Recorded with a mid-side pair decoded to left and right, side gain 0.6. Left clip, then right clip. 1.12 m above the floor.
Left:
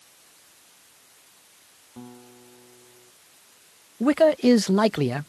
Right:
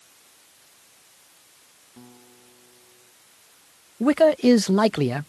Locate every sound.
2.0 s a guitar: 30° left
4.0 s a man speaking: 5° right